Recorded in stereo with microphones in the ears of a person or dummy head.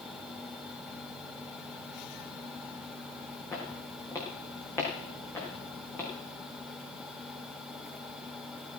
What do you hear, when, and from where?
3.5 s footsteps: 15° left (ahead or behind), 3.5 m; by 6.1 s 10° left (ahead or behind), 6 m